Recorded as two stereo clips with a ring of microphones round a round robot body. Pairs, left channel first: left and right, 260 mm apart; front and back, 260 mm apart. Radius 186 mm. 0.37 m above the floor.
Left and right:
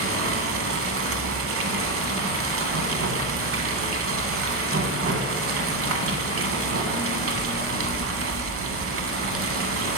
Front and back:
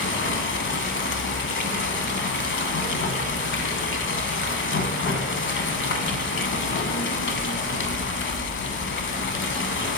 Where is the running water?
50° right, 0.8 m.